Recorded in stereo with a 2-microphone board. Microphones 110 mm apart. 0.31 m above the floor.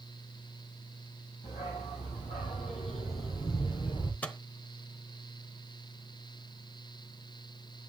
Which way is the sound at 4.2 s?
15° left (ahead or behind).